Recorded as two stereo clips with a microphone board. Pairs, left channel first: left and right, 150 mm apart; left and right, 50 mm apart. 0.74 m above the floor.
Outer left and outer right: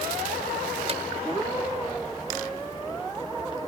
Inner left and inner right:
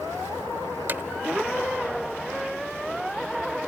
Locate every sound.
0.9 s hammering: 45° right (ahead or behind)